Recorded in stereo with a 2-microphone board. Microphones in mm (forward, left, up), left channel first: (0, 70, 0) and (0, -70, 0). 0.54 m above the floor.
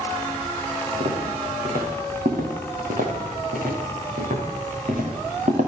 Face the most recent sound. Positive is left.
turn(degrees=-70)  # may be behind; listen again after turning